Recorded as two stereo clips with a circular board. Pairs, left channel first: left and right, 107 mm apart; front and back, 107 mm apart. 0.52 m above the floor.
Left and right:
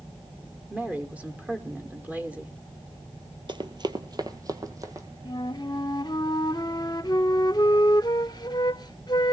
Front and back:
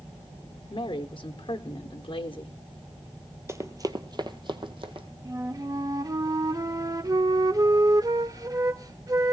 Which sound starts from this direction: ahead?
A woman speaking, at 0.7 s.